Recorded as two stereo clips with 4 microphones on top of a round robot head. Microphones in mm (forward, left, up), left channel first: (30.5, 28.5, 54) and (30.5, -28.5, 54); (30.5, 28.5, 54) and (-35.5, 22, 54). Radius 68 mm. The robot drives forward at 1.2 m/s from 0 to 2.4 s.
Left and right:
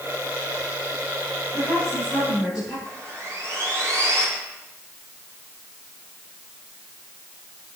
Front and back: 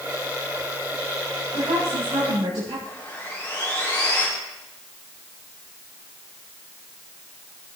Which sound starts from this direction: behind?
A woman speaking, at 1.5 s.